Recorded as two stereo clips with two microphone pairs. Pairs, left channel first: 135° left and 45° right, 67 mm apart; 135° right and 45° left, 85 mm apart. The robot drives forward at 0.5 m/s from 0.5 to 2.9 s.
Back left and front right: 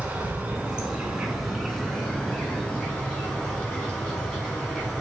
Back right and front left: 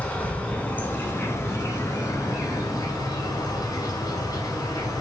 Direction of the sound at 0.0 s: 80° right.